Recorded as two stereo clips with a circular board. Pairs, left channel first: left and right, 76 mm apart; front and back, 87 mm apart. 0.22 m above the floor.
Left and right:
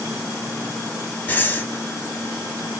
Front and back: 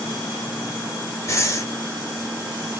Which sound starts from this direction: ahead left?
Breathing, at 1.3 s.